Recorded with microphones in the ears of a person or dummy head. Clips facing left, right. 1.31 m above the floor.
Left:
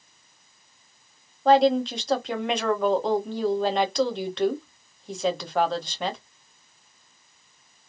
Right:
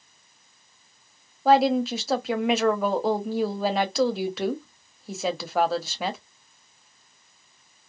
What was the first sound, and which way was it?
A woman speaking, 5° right (ahead or behind).